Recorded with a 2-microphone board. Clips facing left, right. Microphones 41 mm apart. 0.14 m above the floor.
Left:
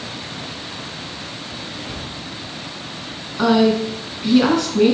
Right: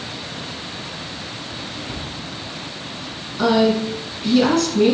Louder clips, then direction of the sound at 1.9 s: Even; centre (ahead or behind).